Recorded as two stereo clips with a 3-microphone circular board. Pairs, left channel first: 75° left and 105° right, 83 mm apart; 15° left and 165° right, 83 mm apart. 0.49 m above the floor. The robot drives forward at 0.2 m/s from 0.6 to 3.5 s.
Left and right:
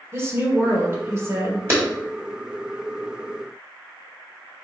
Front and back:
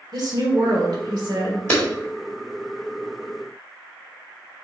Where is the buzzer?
No buzzer in this recording.